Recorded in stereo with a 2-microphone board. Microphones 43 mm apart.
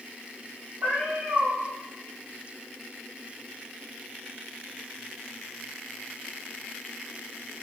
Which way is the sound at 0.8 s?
60° right (ahead or behind).